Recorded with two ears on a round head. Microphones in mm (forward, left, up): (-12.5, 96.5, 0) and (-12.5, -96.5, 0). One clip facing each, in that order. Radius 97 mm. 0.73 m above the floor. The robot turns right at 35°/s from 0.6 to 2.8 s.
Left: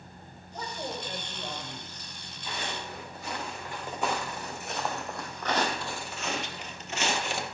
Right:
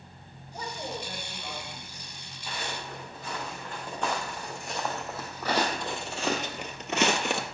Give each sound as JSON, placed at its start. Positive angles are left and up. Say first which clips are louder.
{"t": 0.5, "sound": "a man speaking", "louder": "even", "azimuth_deg": -10, "distance_m": 3.5}
{"t": 2.5, "sound": "footsteps", "louder": "even", "side_deg": 0, "distance_m": 5.0}